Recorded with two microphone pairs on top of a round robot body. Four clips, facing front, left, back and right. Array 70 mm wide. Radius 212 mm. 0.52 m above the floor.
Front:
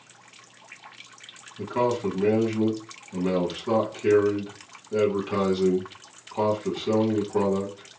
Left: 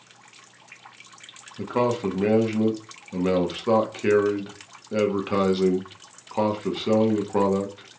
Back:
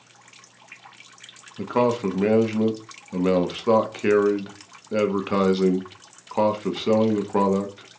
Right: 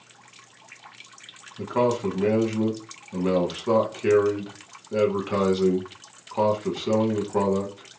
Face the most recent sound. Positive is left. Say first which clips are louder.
# even, back 3 dB
turn(degrees=165)